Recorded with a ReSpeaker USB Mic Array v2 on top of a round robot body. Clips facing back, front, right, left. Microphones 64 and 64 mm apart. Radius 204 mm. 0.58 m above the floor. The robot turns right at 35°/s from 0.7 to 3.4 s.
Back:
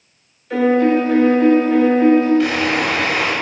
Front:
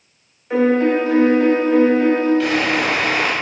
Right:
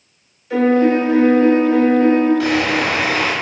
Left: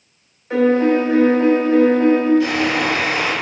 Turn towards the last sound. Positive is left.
turn(degrees=-65)